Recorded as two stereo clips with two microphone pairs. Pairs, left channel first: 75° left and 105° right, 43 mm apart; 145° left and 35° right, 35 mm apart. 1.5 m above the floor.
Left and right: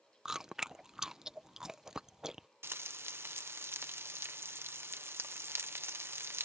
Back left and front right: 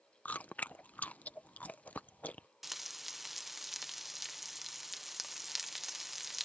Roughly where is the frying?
Behind right.